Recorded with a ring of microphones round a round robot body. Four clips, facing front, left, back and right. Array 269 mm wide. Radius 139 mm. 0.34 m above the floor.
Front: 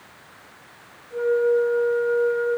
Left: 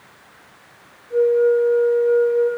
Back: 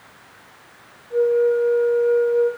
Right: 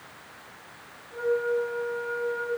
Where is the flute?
130° left, 9 m.